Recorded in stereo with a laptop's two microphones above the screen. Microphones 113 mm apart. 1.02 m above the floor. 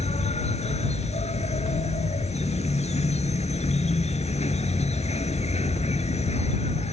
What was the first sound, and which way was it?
An insect, 75° left (ahead or behind).